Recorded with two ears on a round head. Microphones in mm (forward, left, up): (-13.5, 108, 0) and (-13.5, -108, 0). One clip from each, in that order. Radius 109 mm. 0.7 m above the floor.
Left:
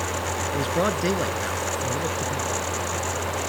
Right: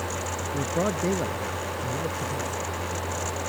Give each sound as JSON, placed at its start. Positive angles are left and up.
{"t": 0.5, "sound": "a man speaking", "side_deg": 70}